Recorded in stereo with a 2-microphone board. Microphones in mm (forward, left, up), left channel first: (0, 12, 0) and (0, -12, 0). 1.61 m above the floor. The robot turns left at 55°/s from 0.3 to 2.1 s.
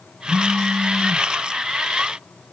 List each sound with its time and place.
0.2 s a phone buzzing: 25° left (ahead or behind), 1.4 m; by 1.2 s 20° left (ahead or behind), 1.4 m